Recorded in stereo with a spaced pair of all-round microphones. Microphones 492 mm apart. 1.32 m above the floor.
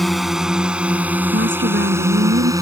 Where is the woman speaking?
25° right (ahead or behind).